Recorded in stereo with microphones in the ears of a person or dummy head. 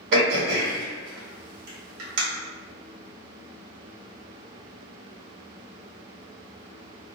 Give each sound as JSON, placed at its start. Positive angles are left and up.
{"t": 0.1, "sound": "throat clearing", "side_deg": -70, "distance_m": 1.0}